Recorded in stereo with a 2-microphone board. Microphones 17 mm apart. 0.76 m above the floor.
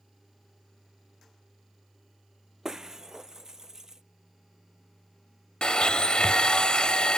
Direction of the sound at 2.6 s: 30° right (ahead or behind).